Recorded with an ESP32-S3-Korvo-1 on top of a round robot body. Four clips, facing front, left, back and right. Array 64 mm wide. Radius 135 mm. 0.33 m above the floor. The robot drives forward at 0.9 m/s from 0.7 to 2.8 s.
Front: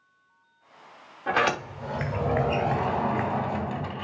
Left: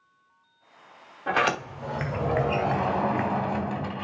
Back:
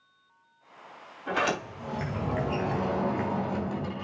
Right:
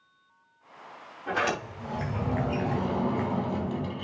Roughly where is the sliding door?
Ahead left.